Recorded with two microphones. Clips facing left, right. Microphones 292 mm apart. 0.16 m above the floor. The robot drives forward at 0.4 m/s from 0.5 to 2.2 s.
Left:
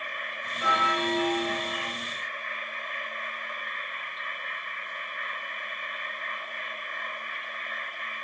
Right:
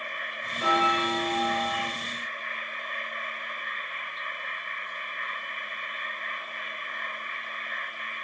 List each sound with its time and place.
0.6 s a bell: 40° right (ahead or behind), 1.7 m; by 1.8 s 35° right (ahead or behind), 1.9 m